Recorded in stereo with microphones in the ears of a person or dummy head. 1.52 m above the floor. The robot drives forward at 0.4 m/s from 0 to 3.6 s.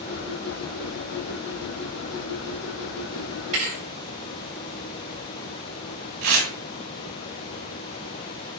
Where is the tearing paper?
35° right (ahead or behind), 2 m.